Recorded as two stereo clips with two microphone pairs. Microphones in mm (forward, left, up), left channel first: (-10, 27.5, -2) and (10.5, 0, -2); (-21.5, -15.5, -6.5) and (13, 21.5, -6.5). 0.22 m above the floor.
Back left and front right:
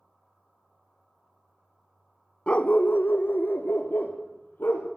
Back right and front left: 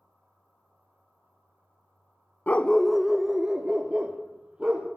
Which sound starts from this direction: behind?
A dog barking, at 2.5 s.